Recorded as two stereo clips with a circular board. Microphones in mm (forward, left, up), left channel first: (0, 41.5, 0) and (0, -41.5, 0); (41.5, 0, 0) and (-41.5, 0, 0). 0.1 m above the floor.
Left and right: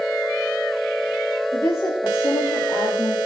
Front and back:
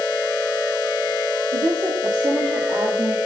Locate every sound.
1.5 s a woman speaking: 145° left, 9.5 m; by 3.2 s 155° left, 7.5 m